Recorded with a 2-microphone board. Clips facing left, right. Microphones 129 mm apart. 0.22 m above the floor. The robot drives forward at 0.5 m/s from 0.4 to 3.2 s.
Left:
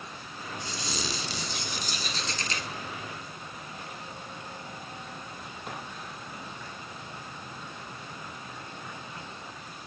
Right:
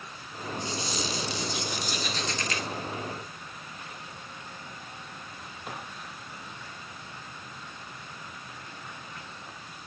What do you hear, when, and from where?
0.7 s a squeak: 70° left (ahead or behind), 0.5 m; by 2.7 s 30° left (ahead or behind), 1.0 m